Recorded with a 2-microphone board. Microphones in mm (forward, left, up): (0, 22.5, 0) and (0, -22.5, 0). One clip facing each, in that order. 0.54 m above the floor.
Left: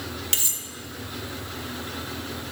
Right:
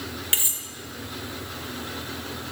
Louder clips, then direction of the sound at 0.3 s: Right 3 dB; 25° right (ahead or behind).